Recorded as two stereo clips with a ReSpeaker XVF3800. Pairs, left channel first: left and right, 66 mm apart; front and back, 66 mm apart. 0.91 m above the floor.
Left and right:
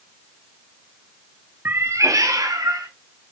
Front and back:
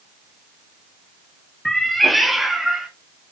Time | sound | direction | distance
1.6 | a cat meowing | 75° right | 0.7 m